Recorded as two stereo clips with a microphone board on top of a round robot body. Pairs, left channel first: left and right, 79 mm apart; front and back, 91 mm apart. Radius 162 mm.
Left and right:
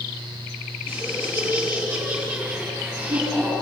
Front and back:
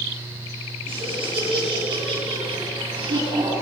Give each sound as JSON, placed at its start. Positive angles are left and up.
{"t": 0.8, "sound": "laughter", "azimuth_deg": -155, "distance_m": 7.5}